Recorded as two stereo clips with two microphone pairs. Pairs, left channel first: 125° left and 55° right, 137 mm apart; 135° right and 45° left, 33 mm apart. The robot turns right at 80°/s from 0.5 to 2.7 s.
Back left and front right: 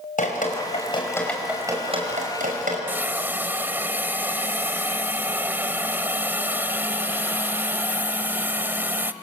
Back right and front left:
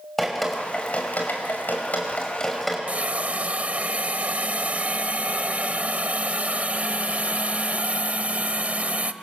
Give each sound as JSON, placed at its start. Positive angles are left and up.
{"t": 0.2, "sound": "dripping", "azimuth_deg": 145, "distance_m": 5.0}
{"t": 2.9, "sound": "a hiss", "azimuth_deg": 20, "distance_m": 0.9}